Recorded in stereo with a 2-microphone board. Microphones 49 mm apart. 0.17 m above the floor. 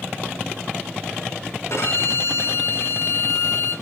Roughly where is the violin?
Left.